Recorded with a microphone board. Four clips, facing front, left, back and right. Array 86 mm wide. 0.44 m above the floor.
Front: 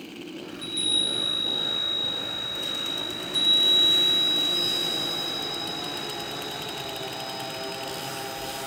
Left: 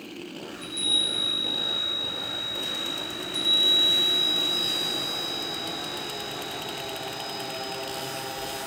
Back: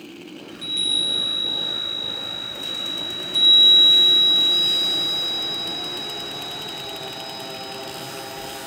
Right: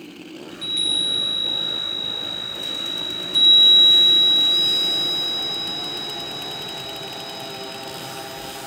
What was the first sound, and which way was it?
A chime, 100° right.